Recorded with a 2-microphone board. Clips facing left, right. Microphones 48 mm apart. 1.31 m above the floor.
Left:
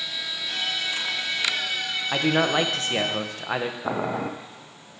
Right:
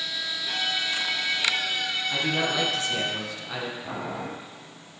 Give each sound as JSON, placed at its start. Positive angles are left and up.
{"t": 0.5, "sound": "a violin", "side_deg": -25, "distance_m": 1.7}
{"t": 2.1, "sound": "a man speaking", "side_deg": 45, "distance_m": 0.7}
{"t": 3.8, "sound": "boiling", "side_deg": 65, "distance_m": 0.6}